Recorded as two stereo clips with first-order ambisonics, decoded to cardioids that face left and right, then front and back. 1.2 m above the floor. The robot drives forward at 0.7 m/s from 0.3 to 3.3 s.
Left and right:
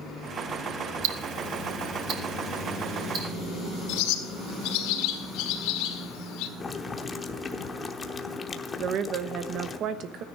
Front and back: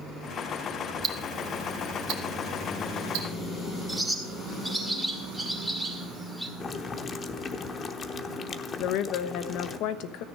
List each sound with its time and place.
1.0 s ticking: 110° right, 0.9 m; by 3.3 s 155° right, 2 m
3.9 s a bird: 90° left, 1.7 m
6.6 s boiling: 35° left, 0.8 m
8.8 s a woman speaking: 40° right, 1.0 m